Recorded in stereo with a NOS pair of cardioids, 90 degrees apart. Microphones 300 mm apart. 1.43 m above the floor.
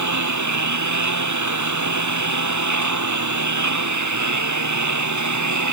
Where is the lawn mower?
65° right.